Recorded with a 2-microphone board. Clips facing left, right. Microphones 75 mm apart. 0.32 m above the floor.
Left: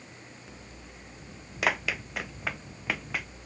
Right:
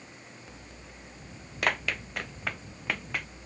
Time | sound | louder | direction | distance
1.6 | running footsteps | left 1 dB | 5° left (ahead or behind) | ?